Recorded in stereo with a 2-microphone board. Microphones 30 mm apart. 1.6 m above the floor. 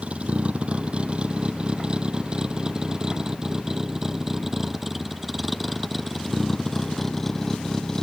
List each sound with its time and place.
0.0 s a vehicle: 40° right (ahead or behind); by 8.0 s 10° left (ahead or behind)